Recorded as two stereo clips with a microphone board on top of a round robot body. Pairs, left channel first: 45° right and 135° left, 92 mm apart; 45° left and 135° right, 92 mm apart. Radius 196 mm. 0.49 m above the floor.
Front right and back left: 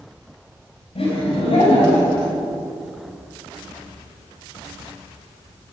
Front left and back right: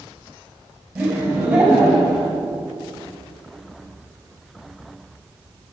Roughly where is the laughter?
Ahead right.